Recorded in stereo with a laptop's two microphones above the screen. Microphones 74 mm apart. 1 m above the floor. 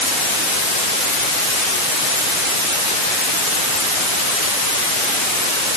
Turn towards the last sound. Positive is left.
No sound to turn to.